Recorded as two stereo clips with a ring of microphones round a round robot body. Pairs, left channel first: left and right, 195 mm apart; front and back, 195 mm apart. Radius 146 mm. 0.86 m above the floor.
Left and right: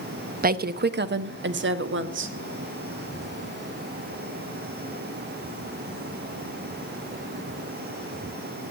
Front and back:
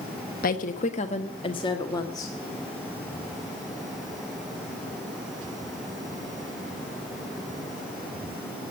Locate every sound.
0.4 s a woman speaking: 50° right, 1.0 m; by 2.4 s 75° right, 1.7 m